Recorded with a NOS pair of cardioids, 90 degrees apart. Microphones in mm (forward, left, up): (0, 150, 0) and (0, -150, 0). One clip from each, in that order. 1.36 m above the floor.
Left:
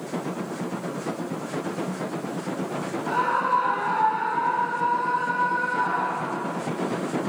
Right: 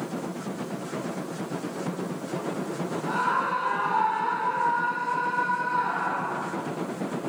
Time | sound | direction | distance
3.1 | a scream | 30° left | 1.6 m